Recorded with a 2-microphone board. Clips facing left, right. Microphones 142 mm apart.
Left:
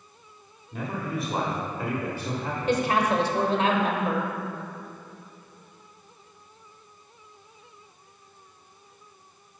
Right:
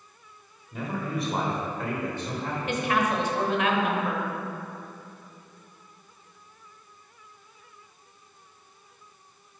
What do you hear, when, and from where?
0.7 s a man speaking: centre (ahead or behind), 1.5 m; by 2.8 s 10° left (ahead or behind), 1.5 m
2.7 s a woman speaking: 35° left (ahead or behind), 0.9 m